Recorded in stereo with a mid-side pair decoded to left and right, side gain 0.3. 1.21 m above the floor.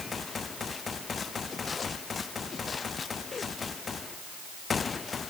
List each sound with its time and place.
Only background noise.